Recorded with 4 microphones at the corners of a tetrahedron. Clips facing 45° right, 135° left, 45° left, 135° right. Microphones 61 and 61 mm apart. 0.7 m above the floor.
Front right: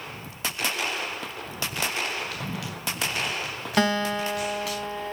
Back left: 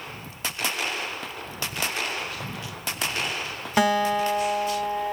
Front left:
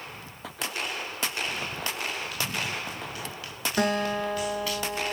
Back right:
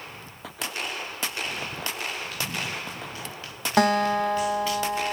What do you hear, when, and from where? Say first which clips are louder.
2.3 s running footsteps: front right 1 dB, even; 75° right, 7.5 m; by 4.8 s 65° right, 5 m
3.8 s a guitar: back left 3 dB, back right 5 dB; 145° right, 1.5 m